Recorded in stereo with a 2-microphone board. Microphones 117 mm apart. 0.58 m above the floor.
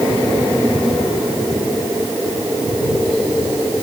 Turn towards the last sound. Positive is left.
No sound to turn to.